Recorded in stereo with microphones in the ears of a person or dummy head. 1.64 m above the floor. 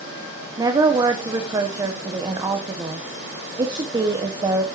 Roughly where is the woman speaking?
Centre.